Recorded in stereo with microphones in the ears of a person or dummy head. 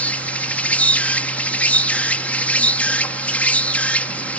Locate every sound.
0.0 s an insect: 10° left (ahead or behind)